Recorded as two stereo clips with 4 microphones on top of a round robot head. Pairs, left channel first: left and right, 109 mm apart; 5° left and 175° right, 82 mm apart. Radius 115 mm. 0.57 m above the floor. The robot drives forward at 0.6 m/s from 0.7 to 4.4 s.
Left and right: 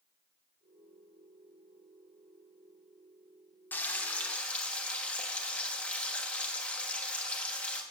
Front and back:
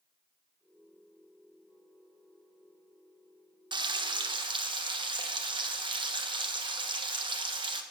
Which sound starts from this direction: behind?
Frying, at 3.7 s.